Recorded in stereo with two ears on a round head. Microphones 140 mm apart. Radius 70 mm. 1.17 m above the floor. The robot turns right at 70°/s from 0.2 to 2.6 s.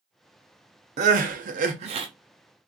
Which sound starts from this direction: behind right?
Crying, at 1.0 s.